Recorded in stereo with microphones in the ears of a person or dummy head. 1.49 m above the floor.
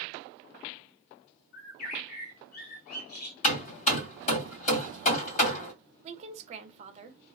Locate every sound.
1.5 s a bird: 40° left (ahead or behind), 0.7 m
3.4 s hammering: 45° left (ahead or behind), 1.6 m
6.0 s a woman speaking: 30° right (ahead or behind), 0.7 m